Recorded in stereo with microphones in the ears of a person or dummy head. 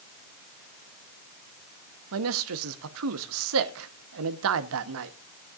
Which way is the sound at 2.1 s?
75° right (ahead or behind).